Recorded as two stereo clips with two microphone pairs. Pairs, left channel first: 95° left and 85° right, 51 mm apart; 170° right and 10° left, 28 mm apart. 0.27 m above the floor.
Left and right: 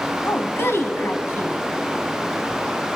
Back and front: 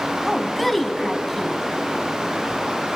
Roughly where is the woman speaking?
Left.